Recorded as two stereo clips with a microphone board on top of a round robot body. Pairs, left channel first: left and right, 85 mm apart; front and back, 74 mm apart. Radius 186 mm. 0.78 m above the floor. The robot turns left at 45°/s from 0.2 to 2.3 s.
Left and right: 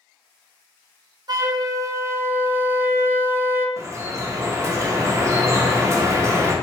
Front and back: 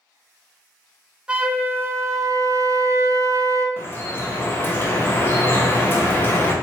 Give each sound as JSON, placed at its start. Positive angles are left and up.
{"t": 1.3, "sound": "a flute", "azimuth_deg": -105, "distance_m": 0.5}
{"t": 3.8, "sound": "dripping", "azimuth_deg": -50, "distance_m": 0.8}